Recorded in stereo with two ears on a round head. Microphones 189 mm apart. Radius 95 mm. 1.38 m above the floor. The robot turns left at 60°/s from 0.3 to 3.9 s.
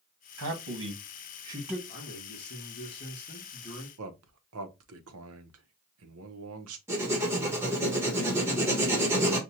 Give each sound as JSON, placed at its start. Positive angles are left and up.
{"t": 0.4, "sound": "a man speaking", "side_deg": -85, "distance_m": 1.5}
{"t": 1.9, "sound": "a man speaking", "azimuth_deg": 125, "distance_m": 1.2}
{"t": 4.0, "sound": "a man speaking", "side_deg": -75, "distance_m": 0.8}
{"t": 6.9, "sound": "writing", "side_deg": -10, "distance_m": 1.2}